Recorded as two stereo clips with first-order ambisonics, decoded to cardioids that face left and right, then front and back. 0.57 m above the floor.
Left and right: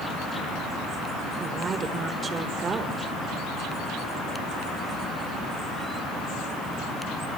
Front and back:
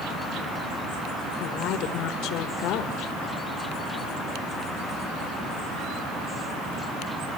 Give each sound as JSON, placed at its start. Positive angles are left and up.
{"t": 1.4, "sound": "a woman speaking", "azimuth_deg": -25, "distance_m": 1.7}